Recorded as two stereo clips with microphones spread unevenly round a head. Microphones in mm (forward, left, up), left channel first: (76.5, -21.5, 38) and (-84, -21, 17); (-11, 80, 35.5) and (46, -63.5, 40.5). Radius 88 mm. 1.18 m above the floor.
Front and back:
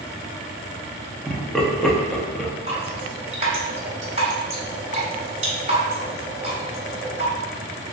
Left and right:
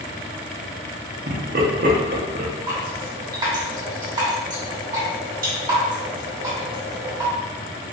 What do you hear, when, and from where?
1.3 s laughter: 90° right, 0.9 m
2.7 s dripping: 135° right, 1.7 m